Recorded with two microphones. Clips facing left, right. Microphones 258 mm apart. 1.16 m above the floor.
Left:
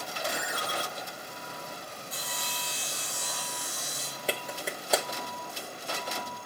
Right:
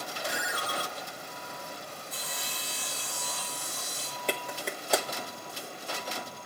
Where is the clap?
Centre (ahead or behind), 1.4 m.